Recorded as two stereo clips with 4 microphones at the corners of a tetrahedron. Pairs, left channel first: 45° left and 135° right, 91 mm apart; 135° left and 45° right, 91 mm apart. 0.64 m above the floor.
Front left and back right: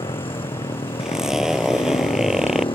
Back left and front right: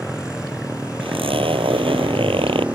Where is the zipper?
50° right.